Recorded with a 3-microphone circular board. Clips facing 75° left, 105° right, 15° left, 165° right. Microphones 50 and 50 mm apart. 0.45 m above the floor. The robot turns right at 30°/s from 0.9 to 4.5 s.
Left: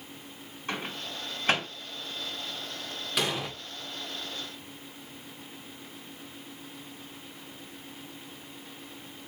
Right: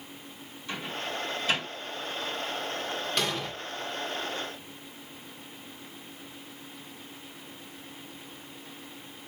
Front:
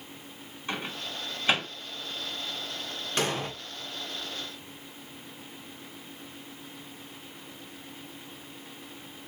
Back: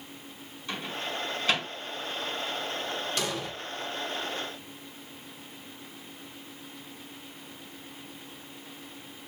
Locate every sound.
0.7 s a microwave: 60° left, 1.4 m; by 1.7 s 85° left, 1.4 m
3.2 s an explosion: 5° right, 0.5 m; by 3.5 s 5° left, 0.5 m